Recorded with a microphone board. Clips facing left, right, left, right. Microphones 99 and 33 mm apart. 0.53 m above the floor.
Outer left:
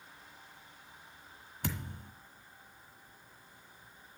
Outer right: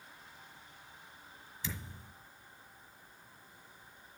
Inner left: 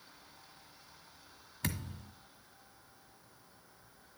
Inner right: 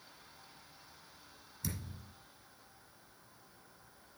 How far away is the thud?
About 1.6 m.